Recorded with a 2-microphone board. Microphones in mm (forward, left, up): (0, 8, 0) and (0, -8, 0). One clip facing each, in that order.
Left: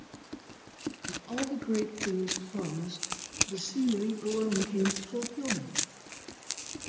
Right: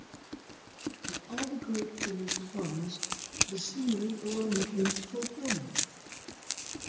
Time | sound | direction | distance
1.1 | a woman speaking | 65° left (ahead or behind) | 5.5 m